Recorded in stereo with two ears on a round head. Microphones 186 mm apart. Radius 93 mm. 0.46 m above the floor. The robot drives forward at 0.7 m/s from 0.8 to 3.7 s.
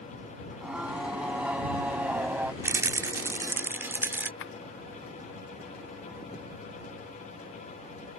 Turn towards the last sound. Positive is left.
turn(degrees=65)  # may be behind; listen again after turning